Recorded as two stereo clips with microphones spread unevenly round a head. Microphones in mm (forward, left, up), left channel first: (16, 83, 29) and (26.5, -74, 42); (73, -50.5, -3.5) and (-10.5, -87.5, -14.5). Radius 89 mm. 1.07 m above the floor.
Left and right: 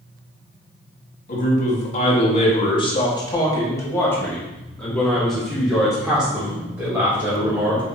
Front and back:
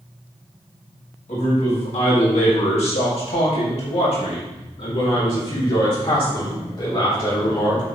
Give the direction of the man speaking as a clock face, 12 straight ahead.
10 o'clock.